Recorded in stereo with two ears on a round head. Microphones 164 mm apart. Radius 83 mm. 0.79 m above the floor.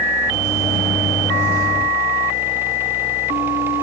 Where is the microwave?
20° left (ahead or behind), 4 m.